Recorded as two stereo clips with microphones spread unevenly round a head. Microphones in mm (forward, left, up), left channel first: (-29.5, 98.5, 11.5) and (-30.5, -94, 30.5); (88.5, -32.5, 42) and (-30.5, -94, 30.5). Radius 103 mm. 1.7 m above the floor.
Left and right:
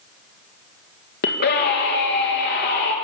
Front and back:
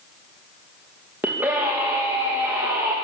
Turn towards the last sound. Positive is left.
turn(degrees=125)